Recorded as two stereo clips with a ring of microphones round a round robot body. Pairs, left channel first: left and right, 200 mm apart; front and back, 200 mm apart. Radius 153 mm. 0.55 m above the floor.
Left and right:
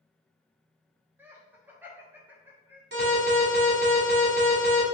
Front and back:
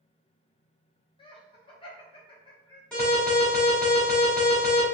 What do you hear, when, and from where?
1.2 s laughter: 20° right, 0.8 m
2.9 s an alarm: 85° right, 2 m